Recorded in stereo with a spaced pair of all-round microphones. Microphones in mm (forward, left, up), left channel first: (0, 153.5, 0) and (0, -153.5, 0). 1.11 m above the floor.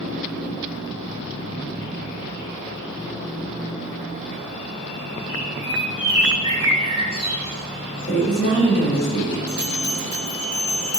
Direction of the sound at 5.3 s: 20° left (ahead or behind).